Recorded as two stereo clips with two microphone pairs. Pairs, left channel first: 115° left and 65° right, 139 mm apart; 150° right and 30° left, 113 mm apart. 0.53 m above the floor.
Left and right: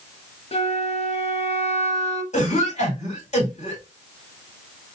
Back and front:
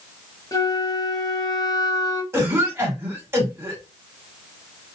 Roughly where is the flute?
Behind left.